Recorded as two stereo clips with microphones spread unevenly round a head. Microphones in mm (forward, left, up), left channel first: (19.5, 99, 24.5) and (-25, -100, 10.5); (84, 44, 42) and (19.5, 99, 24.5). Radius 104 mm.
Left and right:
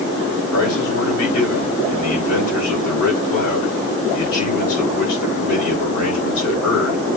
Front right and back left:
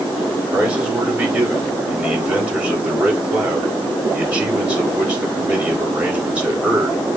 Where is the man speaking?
70° left, 5 m.